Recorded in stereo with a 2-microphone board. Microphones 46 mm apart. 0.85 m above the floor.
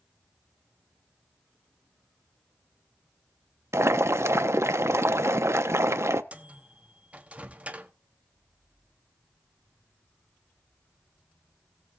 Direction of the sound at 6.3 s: 30° right (ahead or behind).